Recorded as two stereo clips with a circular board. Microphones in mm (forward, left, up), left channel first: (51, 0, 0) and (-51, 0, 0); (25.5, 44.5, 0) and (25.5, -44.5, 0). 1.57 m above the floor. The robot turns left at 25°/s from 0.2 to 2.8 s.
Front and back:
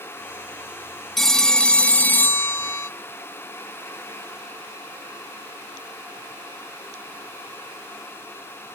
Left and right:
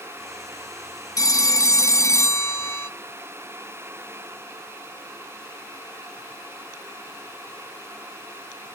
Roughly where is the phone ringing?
Left.